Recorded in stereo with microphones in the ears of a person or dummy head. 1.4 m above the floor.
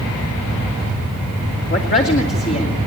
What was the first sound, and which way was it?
A woman speaking, 35° left (ahead or behind).